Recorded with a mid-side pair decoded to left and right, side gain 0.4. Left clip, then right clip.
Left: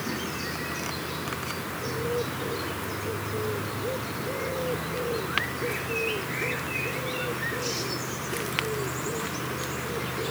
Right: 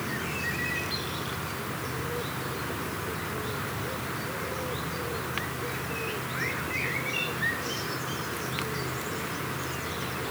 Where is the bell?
No bell in this recording.